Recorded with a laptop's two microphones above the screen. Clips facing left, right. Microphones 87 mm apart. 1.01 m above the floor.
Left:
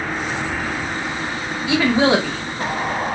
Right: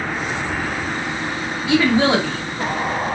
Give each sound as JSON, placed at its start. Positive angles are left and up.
{"t": 1.7, "sound": "a woman speaking", "side_deg": 25, "distance_m": 1.3}